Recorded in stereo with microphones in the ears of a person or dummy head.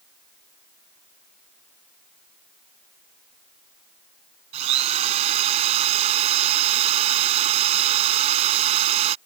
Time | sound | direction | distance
4.5 | a drill | 40° right (ahead or behind) | ?